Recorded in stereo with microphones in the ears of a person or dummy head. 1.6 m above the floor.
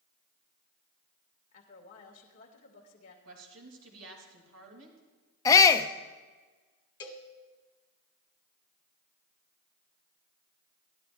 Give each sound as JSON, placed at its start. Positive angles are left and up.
{"t": 1.5, "sound": "a woman speaking", "side_deg": 40, "distance_m": 2.5}
{"t": 3.2, "sound": "a woman speaking", "side_deg": -80, "distance_m": 3.0}
{"t": 5.5, "sound": "a shout", "side_deg": 15, "distance_m": 0.7}
{"t": 7.0, "sound": "a cowbell", "side_deg": 20, "distance_m": 1.6}